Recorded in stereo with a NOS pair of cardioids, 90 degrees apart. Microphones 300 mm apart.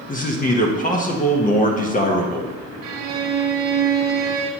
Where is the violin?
65° right, 1.2 m.